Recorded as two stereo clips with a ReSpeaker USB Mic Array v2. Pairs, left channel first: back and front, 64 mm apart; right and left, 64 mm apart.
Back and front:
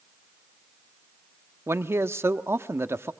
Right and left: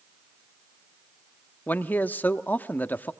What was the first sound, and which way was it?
A man speaking, 35° right.